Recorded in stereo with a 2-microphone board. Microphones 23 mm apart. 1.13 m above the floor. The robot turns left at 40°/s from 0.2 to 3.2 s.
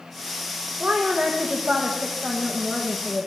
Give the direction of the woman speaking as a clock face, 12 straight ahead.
4 o'clock.